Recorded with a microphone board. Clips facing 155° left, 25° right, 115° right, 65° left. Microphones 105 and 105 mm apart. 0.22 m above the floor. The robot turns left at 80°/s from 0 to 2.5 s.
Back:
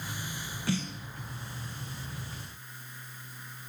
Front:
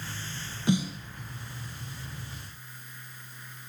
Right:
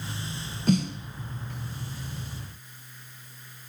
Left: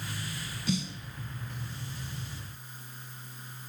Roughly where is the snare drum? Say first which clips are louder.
Front 6 dB, right 8 dB; right.